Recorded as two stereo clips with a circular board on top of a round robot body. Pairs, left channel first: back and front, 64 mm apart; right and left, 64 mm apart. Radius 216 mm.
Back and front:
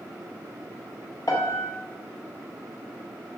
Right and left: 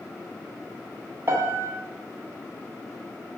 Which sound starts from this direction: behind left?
A piano, at 1.3 s.